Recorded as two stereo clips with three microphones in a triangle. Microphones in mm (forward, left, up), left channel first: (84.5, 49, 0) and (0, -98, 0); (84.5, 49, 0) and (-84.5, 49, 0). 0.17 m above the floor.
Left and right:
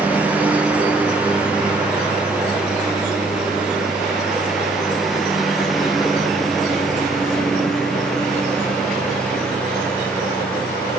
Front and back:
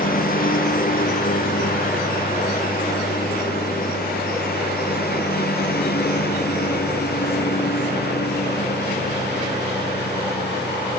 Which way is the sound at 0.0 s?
40° right.